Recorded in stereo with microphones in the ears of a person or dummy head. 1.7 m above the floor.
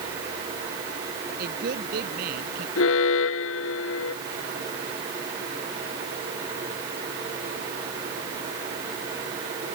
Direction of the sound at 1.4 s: 55° right (ahead or behind).